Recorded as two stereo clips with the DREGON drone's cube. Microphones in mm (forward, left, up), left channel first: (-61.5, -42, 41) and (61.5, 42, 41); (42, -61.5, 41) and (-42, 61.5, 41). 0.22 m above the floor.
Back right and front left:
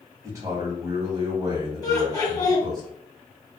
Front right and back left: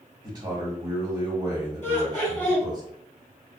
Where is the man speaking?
85° left, 1.3 m.